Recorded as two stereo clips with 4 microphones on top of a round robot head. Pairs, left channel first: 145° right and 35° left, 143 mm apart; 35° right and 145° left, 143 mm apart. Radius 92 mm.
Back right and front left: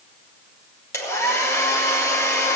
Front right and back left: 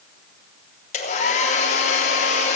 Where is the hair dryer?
75° right, 3 m.